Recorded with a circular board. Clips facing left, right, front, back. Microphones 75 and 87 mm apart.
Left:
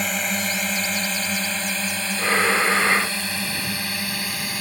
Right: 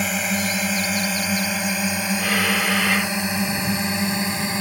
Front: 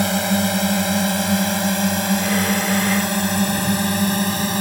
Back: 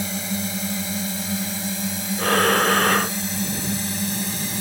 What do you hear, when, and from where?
0.0 s a drone: 5° right; by 4.6 s 25° right
2.2 s breathing: 155° left